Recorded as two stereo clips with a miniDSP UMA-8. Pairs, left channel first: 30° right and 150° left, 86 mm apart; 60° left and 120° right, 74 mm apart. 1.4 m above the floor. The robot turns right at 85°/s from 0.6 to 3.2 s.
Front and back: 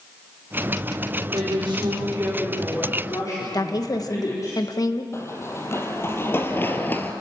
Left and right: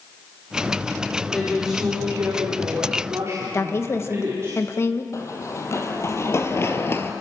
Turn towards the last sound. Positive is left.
turn(degrees=25)